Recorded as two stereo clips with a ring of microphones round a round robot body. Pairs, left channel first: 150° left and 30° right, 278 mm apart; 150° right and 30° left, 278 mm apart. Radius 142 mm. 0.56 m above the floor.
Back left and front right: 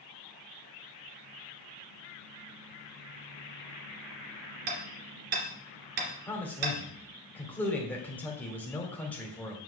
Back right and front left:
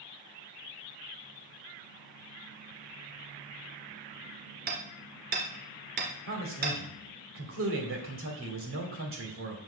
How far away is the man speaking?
About 2 m.